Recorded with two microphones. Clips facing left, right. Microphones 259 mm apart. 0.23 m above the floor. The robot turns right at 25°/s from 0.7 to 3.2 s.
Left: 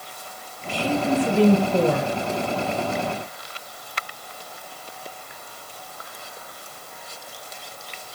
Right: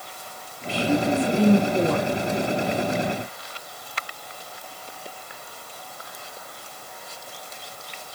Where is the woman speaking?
50° left, 3.5 m; by 2.1 s 85° left, 3.5 m.